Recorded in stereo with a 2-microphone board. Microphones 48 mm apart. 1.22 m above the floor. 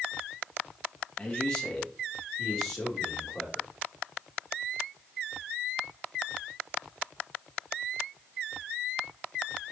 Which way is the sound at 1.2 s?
15° left (ahead or behind).